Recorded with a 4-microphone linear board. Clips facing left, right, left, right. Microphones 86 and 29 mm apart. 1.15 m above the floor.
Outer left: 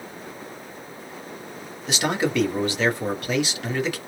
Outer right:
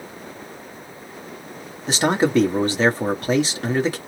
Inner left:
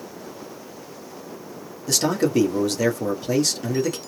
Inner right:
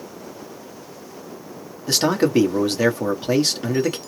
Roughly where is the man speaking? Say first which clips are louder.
Outer right 5 dB, inner right 3 dB; right.